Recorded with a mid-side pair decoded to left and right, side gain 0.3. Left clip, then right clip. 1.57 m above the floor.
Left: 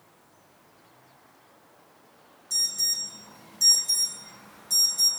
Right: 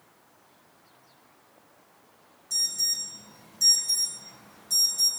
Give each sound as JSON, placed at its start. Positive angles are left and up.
{"t": 2.5, "sound": "an alarm", "azimuth_deg": 25, "distance_m": 8.0}